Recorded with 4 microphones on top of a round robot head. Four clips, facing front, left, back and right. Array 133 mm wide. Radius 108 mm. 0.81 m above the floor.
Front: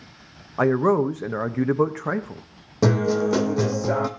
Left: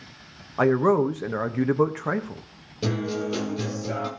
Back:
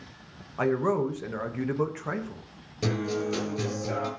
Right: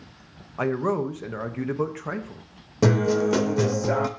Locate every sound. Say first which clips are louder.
0.6 s a man speaking: left 5 dB, front 6 dB; 35° left, 1.2 m
2.8 s a guitar: right 7 dB, front 9 dB; 40° right, 0.7 m